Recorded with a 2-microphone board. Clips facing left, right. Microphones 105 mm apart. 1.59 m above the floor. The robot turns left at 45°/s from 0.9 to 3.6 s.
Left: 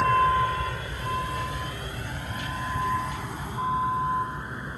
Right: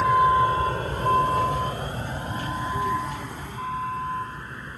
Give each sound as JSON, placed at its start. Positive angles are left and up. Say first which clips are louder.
{"t": 0.0, "sound": "a vehicle", "louder": "right 3 dB", "side_deg": -5}